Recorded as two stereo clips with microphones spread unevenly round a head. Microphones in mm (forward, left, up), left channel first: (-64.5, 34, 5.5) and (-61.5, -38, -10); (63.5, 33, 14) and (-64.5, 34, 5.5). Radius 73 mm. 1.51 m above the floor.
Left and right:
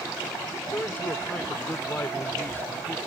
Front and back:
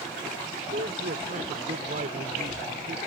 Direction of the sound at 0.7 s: 150° left.